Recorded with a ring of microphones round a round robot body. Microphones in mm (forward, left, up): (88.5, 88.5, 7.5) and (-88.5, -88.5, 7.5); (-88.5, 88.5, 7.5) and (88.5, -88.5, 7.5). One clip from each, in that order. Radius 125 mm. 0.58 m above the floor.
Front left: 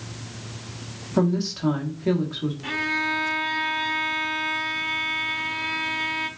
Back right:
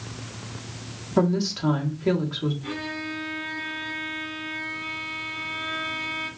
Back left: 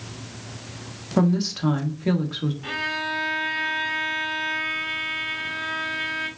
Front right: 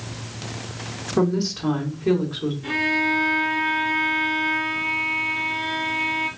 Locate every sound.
1.2 s a woman speaking: 150° left, 1.2 m
2.6 s a violin: 85° left, 1.4 m